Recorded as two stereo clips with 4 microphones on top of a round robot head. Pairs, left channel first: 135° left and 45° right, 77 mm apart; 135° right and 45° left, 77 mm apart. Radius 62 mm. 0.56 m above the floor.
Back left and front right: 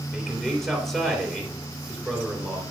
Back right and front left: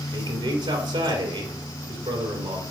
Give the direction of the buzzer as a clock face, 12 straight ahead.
No buzzer in this recording.